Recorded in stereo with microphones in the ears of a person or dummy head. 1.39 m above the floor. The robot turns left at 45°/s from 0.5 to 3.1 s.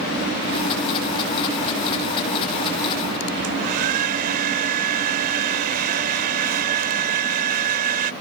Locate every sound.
3.4 s a hair dryer: 55° right (ahead or behind)